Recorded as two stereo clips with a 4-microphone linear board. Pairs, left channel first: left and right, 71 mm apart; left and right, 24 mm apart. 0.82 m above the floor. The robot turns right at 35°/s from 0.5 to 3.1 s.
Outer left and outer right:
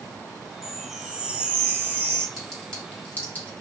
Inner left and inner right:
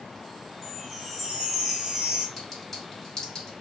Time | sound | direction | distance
0.6 | a chime | straight behind | 0.6 m
2.4 | a clink | centre (ahead or behind) | 1.4 m